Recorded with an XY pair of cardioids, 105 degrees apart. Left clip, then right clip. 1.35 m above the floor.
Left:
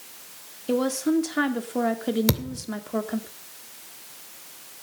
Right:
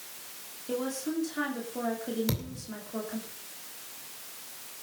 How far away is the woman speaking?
About 2.5 m.